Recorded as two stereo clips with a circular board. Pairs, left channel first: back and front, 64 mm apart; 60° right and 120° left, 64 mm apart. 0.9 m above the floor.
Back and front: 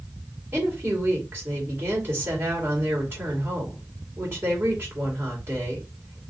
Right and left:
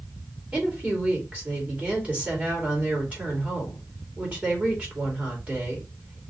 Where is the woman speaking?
50° left, 2.5 m.